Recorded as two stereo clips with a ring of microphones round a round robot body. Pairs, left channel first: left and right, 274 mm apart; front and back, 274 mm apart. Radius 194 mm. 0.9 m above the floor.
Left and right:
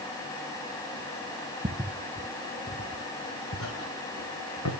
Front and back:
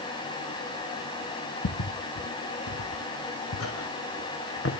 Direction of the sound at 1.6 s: 25° right.